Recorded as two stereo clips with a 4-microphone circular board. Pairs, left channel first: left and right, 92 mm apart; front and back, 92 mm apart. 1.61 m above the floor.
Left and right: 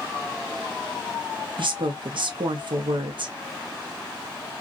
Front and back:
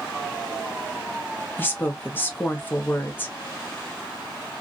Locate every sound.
1.6 s a woman speaking: 65° right, 0.8 m